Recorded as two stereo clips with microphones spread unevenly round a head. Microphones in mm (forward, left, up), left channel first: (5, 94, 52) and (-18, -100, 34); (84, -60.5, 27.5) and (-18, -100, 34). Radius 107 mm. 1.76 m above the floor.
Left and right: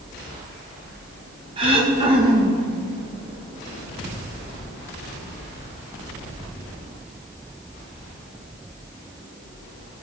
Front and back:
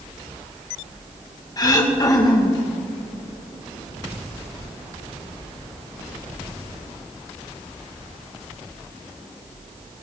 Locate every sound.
1.6 s throat clearing: 35° right, 2.0 m